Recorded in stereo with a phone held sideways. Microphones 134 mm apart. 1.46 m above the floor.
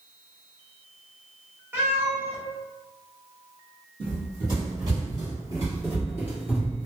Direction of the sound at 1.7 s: 15° right (ahead or behind).